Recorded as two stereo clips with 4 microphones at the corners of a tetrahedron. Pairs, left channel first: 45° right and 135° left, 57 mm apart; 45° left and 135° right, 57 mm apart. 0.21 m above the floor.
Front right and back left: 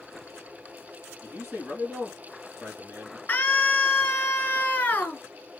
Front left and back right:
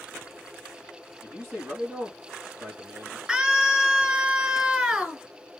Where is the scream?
70° right, 1.5 m.